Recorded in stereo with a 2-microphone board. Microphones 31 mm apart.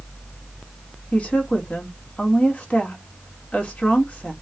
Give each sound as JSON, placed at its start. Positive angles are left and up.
{"t": 1.1, "sound": "a woman speaking", "side_deg": 45, "distance_m": 1.6}